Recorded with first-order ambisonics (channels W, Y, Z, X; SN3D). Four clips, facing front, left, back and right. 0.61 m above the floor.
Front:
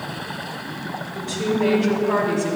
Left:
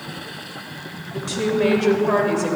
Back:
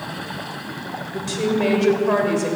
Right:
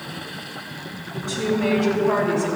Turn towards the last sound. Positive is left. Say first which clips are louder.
# left 2 dB, back 2 dB
turn(degrees=135)